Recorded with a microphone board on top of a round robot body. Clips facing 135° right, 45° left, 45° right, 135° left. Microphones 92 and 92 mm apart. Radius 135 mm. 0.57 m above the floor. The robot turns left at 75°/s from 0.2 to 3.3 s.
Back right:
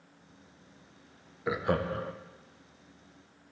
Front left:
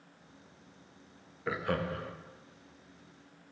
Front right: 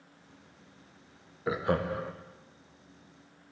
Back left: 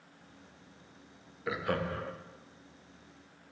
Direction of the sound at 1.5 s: 70° right.